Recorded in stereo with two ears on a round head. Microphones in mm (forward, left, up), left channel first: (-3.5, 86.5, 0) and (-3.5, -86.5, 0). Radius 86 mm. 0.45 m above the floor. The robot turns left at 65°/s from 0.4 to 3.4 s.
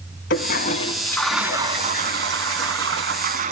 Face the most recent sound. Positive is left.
turn(degrees=-135)